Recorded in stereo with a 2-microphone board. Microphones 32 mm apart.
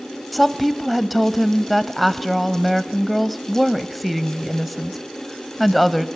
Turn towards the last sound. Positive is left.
turn(degrees=0)  # may be behind; listen again after turning